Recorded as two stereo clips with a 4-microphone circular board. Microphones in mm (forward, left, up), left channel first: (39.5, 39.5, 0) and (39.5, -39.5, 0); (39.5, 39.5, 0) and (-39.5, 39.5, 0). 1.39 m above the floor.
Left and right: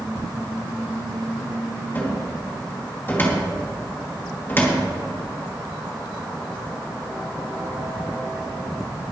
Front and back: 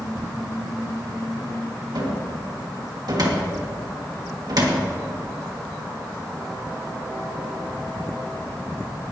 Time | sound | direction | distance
1.9 | a cupboard door | 155° left | 2.5 m